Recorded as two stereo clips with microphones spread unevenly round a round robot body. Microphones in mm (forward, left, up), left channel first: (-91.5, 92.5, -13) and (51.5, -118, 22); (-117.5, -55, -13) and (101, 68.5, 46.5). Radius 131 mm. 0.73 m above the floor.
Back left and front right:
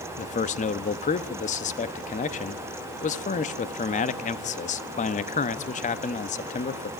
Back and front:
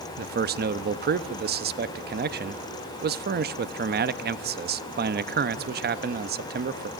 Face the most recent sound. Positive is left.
turn(degrees=80)